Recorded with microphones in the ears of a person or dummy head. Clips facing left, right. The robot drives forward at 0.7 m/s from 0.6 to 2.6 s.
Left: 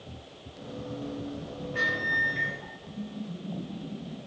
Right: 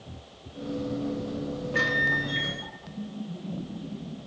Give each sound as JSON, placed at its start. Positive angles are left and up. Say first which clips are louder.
{"t": 1.7, "sound": "a microwave", "louder": "right 3 dB", "side_deg": -65, "distance_m": 0.9}